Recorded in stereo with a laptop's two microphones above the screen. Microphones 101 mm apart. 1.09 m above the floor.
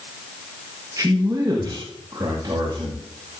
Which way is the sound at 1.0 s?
35° right (ahead or behind).